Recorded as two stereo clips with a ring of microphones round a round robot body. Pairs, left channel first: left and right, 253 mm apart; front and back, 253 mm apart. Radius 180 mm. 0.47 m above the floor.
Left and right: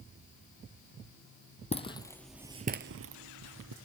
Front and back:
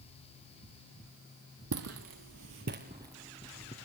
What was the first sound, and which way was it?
Footsteps, 155° left.